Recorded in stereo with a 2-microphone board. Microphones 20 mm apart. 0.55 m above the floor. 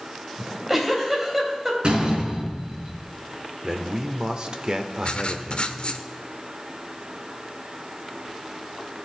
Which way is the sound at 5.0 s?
55° left (ahead or behind).